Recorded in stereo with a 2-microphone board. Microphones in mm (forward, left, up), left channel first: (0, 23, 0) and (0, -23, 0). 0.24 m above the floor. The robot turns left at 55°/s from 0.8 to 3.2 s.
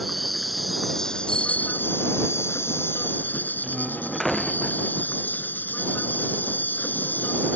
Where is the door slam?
5° left (ahead or behind).